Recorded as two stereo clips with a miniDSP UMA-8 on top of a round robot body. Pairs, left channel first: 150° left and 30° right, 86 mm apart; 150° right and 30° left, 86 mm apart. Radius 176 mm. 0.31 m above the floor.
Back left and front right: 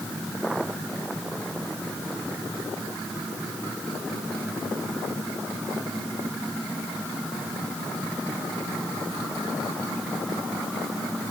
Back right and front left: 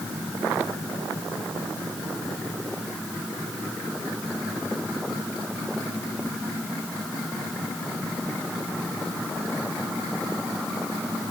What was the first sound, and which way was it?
Only background noise.